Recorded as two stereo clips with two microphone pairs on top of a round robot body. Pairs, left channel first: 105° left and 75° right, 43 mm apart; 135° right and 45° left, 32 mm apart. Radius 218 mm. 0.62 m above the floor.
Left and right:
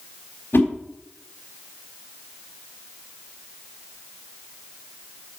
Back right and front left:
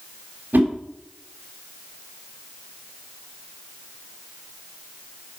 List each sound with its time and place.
0.5 s a whoosh: 70° left, 3.5 m